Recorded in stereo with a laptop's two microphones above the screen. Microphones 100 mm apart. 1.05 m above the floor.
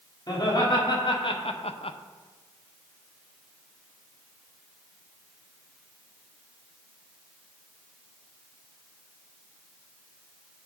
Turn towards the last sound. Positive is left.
turn(degrees=50)  # may be behind; listen again after turning